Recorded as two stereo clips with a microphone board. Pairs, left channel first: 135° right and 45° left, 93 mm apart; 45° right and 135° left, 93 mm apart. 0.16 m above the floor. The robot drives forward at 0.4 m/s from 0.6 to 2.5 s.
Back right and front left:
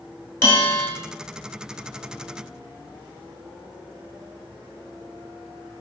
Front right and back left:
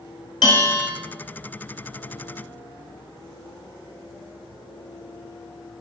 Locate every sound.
0.4 s a bell: 80° right, 0.9 m; by 0.9 s 90° right, 0.9 m